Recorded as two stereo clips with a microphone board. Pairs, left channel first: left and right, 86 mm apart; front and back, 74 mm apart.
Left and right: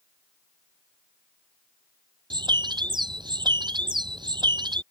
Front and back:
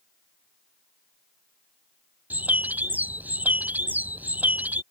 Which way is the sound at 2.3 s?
115° right.